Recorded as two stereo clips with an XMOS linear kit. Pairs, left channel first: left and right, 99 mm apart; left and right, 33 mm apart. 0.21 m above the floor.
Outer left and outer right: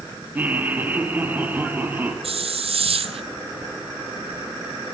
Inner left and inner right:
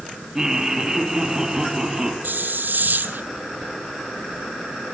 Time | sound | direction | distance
0.3 | laughter | 15° right (ahead or behind) | 5.5 m
2.2 | a hiss | 80° right | 1.3 m